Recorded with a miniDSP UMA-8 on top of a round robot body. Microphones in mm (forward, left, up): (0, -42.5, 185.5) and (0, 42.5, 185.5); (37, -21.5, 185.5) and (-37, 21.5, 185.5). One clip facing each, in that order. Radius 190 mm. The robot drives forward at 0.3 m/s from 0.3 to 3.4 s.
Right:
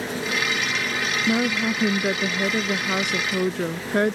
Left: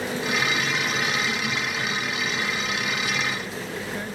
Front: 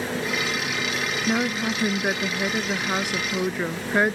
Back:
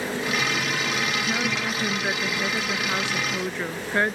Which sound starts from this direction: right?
A woman speaking, at 1.3 s.